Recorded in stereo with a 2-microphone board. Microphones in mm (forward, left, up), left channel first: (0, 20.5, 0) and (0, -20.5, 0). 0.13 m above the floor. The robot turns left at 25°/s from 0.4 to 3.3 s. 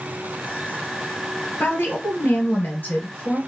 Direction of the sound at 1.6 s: 105° left.